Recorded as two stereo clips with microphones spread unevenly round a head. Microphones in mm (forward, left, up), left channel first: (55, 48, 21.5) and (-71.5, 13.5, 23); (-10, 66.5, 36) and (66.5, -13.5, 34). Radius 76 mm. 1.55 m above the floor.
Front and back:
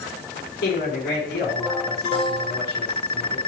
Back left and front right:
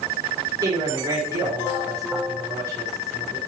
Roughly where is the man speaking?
Ahead.